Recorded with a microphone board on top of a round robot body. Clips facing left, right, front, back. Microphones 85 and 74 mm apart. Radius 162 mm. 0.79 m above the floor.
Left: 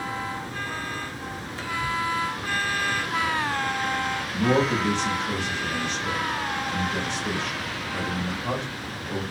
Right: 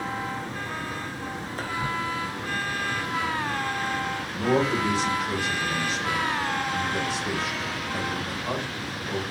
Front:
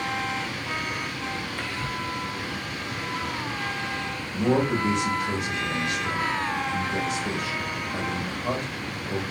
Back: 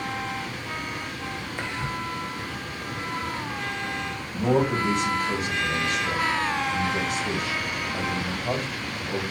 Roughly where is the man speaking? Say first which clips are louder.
Left 1 dB, even; ahead.